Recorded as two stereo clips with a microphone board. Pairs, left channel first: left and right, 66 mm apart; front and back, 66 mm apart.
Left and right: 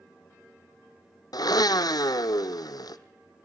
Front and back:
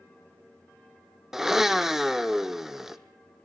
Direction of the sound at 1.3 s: 100° left.